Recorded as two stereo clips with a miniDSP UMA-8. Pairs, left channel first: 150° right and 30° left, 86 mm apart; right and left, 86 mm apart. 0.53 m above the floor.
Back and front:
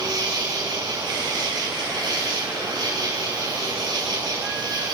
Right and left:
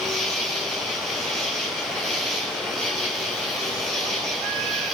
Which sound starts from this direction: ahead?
An insect, at 0.0 s.